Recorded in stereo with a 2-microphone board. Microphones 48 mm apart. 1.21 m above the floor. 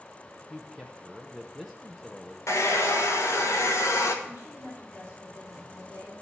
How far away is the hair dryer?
About 1.1 m.